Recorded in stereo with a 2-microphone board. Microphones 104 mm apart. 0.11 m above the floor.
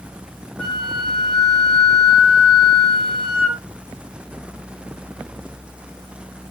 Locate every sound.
0.6 s a flute: 10° left (ahead or behind), 1.8 m